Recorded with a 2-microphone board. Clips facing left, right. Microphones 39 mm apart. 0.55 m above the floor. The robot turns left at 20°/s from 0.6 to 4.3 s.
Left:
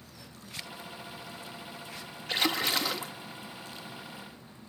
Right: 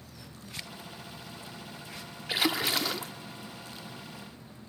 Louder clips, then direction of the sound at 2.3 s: Even; 10° right (ahead or behind).